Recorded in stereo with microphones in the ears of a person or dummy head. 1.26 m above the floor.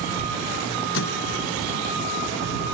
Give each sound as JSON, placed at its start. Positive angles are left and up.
{"t": 0.9, "sound": "a microwave", "side_deg": 65}